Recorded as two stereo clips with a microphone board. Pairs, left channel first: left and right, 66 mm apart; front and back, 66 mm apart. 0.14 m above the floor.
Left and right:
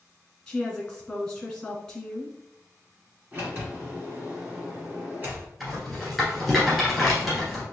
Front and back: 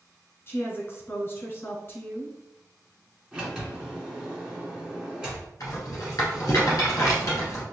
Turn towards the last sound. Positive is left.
turn(degrees=-5)